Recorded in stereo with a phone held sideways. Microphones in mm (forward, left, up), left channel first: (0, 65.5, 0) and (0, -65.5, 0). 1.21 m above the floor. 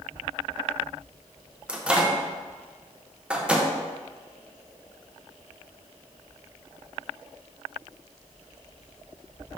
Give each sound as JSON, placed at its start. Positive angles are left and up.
{"t": 1.7, "sound": "a microwave", "side_deg": -10, "distance_m": 0.6}